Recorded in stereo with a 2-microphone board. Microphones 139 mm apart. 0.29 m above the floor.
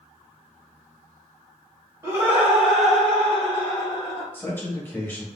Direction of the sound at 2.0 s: 20° right (ahead or behind).